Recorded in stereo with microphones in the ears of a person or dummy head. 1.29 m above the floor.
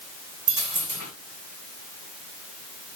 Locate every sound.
0.5 s a dropped coin: 55° right (ahead or behind), 2 m